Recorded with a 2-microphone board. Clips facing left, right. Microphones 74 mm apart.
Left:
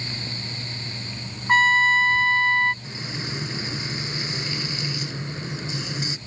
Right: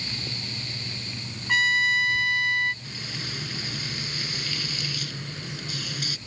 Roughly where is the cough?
No cough in this recording.